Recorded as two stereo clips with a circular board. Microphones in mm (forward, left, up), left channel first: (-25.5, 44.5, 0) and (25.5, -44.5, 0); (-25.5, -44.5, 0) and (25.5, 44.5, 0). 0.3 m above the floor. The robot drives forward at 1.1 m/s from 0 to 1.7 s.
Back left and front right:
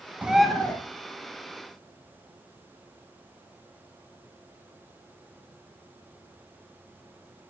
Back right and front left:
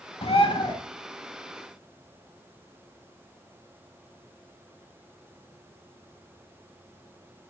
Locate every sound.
0.2 s a bird: 135° right, 0.6 m; by 0.8 s 160° right, 1.1 m